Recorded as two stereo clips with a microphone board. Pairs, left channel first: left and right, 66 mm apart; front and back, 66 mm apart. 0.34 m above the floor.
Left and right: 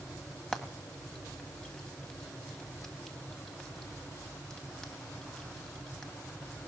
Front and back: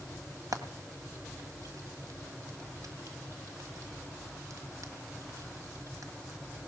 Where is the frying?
165° left, 1.8 m.